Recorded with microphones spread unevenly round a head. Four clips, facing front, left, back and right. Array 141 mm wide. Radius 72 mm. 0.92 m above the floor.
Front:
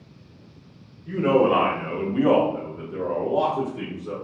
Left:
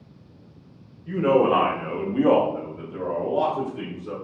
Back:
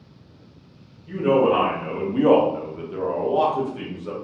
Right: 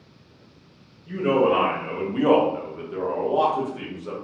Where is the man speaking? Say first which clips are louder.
Left 1 dB, back 1 dB; 60° left, 0.7 m; by 4.1 s 130° right, 1.4 m.